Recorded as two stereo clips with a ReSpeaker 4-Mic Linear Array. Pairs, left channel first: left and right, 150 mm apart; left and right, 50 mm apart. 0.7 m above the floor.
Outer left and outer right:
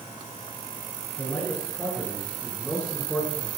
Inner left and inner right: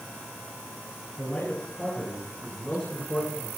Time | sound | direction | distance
1.2 | a man speaking | 10° left (ahead or behind) | 8.5 m